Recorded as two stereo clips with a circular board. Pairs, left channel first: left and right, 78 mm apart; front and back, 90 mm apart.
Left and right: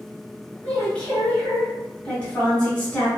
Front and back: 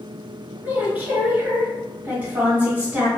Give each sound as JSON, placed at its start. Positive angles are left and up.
{"t": 0.6, "sound": "a woman speaking", "azimuth_deg": 145, "distance_m": 1.6}